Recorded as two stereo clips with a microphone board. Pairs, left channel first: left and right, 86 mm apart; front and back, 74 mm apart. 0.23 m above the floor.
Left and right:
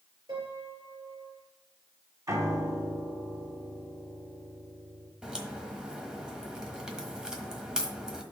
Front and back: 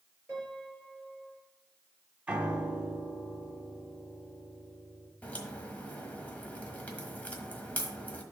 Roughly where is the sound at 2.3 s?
Behind right.